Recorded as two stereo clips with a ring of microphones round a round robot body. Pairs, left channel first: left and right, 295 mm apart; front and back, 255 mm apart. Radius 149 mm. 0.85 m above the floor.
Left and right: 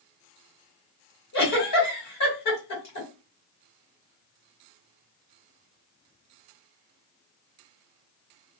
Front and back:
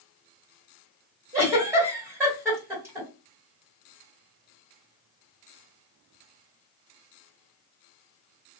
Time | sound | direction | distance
1.3 | a giggle | 100° left | 1.8 m